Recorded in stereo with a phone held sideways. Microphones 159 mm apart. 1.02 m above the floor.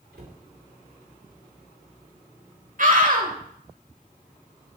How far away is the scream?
About 3.5 m.